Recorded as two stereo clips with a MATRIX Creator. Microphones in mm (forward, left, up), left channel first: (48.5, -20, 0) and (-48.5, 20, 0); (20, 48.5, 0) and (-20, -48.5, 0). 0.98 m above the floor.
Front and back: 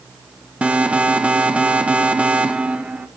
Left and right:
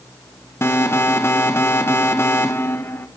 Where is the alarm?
95° left, 1.6 m.